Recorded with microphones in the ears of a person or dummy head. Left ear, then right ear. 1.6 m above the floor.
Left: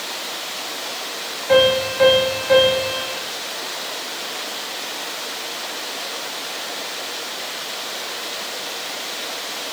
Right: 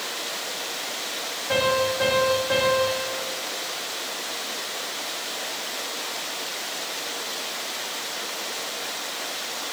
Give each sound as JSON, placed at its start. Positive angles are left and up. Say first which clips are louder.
{"t": 1.5, "sound": "a piano", "louder": "left 7 dB", "side_deg": 15, "distance_m": 1.3}